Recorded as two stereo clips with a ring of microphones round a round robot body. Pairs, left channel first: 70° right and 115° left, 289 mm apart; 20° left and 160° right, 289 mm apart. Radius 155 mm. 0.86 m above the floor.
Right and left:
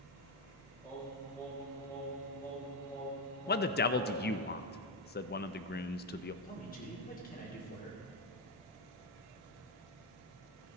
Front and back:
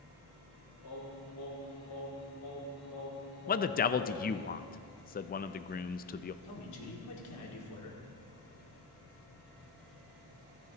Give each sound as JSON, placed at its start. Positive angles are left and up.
{"t": 0.8, "sound": "singing", "azimuth_deg": 15, "distance_m": 5.0}
{"t": 3.5, "sound": "a man speaking", "azimuth_deg": -25, "distance_m": 0.5}
{"t": 6.4, "sound": "a man speaking", "azimuth_deg": -5, "distance_m": 2.0}